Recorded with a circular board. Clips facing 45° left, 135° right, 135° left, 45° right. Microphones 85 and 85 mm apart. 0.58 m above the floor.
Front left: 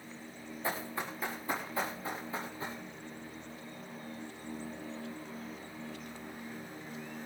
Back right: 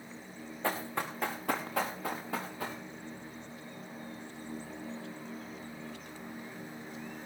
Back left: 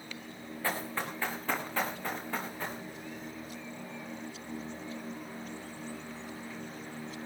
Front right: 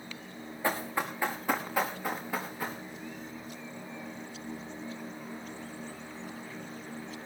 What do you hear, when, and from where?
0.6 s running footsteps: 115° right, 3.5 m; by 2.8 s 130° right, 4.5 m